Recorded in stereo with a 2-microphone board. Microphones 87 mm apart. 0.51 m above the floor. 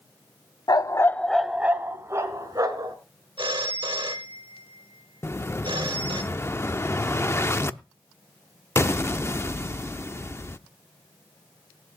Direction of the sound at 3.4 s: 65° right (ahead or behind).